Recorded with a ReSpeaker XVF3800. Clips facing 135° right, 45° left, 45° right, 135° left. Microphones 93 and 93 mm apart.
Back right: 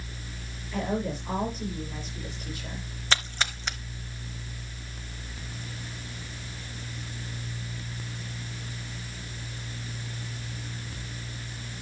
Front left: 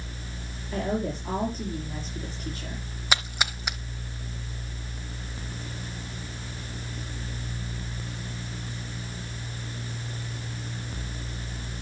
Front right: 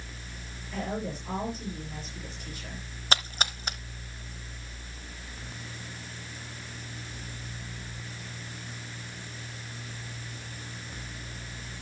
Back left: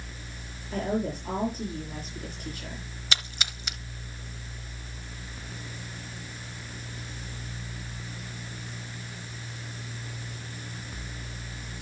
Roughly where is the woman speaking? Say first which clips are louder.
Front left 1 dB, back left 5 dB; left.